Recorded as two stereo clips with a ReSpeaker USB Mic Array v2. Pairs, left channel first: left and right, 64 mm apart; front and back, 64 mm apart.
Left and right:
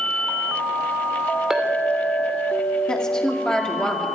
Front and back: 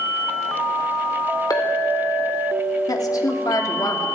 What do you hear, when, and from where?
1.5 s a clink: 10° right, 2 m
2.9 s a woman speaking: 10° left, 2.5 m